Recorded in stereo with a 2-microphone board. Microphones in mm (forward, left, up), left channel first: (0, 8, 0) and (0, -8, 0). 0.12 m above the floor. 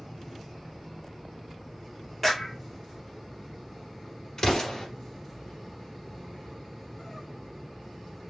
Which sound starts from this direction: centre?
A clap, at 2.2 s.